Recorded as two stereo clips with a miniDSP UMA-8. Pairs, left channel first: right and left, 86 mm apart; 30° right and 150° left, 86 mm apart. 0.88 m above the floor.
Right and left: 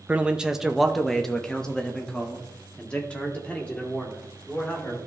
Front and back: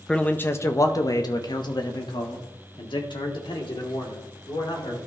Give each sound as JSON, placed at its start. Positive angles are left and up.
{"t": 0.1, "sound": "a man speaking", "azimuth_deg": 35, "distance_m": 0.5}